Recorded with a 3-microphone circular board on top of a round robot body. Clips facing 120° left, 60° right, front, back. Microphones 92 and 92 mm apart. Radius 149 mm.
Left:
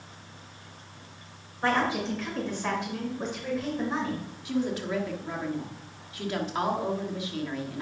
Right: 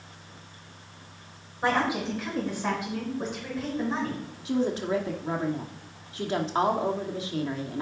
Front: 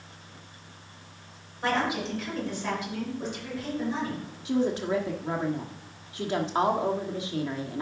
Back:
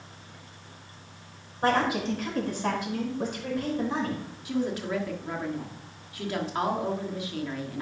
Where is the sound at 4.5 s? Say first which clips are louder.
Right 3 dB, front 3 dB; 35° right, 1.5 m.